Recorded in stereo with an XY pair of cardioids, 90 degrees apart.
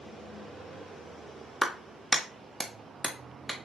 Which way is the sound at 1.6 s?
20° right.